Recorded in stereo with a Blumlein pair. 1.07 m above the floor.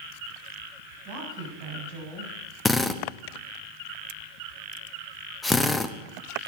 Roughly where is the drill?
Ahead.